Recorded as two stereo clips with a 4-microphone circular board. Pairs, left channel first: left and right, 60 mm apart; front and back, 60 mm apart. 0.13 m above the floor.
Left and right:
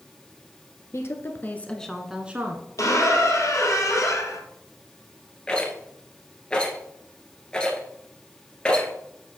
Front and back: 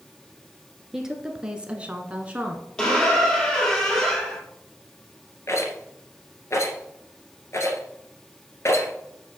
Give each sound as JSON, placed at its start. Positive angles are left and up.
{"t": 0.9, "sound": "a woman speaking", "azimuth_deg": 95, "distance_m": 1.6}
{"t": 2.8, "sound": "a squeak", "azimuth_deg": 75, "distance_m": 2.0}
{"t": 5.5, "sound": "a rattle", "azimuth_deg": 20, "distance_m": 1.9}